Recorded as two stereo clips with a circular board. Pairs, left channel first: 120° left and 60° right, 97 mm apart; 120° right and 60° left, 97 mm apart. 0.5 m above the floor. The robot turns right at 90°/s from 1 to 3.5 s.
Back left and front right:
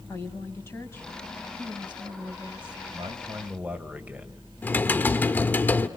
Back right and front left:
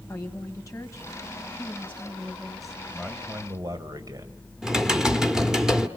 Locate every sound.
0.1 s a woman speaking: 175° right, 3 m; by 2.8 s 15° right, 3 m
2.9 s a man speaking: 40° right, 1.9 m; by 4.4 s 15° left, 1.9 m
4.6 s typing on a keyboard: 130° left, 1.3 m